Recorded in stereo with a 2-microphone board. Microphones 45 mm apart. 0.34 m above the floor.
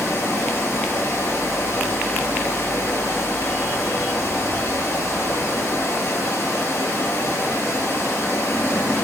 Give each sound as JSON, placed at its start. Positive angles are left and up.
{"t": 0.0, "sound": "running water", "side_deg": 70, "distance_m": 2.0}